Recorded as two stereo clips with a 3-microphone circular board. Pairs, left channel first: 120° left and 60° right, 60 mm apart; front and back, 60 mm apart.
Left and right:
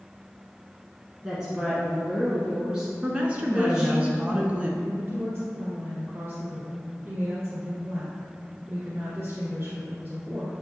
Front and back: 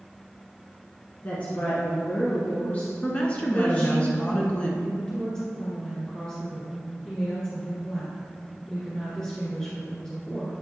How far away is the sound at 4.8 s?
About 2.0 m.